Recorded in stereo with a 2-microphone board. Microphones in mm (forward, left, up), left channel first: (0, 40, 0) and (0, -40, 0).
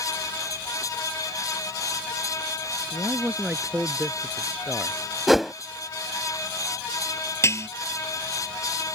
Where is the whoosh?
Centre (ahead or behind).